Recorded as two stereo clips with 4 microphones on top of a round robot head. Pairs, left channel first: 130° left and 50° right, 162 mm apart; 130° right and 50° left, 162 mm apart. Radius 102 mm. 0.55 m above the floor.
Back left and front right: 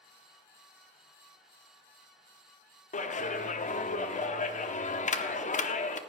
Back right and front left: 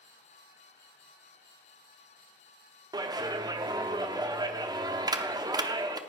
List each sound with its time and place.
2.9 s a clap: 110° left, 0.9 m